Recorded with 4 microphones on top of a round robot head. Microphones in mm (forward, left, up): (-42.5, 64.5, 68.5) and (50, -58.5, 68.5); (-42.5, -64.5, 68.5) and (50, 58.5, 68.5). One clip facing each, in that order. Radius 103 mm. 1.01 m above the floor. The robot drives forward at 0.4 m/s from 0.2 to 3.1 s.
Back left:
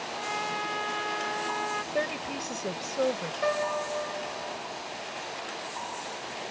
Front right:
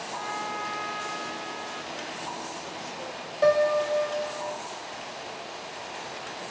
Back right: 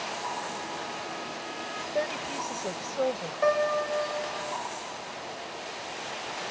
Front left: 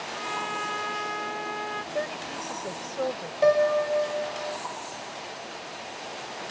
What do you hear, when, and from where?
0.1 s a trumpet: 55° left; by 1.8 s 95° left
1.9 s a woman speaking: 150° left
3.4 s a piano: 10° right